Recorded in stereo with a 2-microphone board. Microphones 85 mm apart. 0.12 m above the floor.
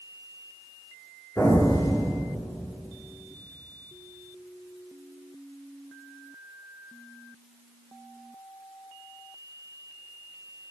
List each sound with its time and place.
1.4 s an explosion: 30° left (ahead or behind), 1.7 m